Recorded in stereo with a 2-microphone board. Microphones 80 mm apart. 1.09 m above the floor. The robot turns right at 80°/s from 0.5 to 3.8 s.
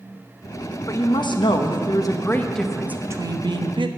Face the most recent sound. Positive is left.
turn(degrees=-90)